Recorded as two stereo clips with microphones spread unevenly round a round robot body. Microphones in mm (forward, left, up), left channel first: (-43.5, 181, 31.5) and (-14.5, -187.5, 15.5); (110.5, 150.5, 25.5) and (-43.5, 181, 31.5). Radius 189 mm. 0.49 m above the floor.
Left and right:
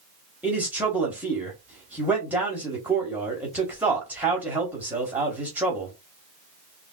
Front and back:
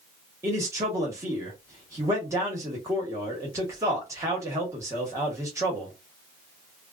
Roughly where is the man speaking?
Behind right.